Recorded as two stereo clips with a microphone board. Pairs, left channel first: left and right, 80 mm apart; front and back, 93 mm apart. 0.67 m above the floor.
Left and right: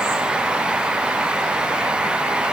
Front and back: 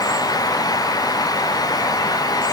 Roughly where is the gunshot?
I don't hear a gunshot.